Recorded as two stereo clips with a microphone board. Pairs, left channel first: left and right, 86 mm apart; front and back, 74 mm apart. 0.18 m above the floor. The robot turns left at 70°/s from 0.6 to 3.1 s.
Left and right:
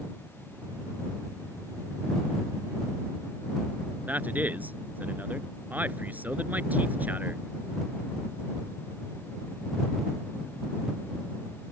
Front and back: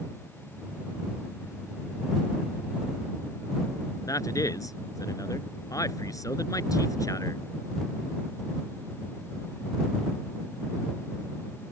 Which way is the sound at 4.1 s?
25° right.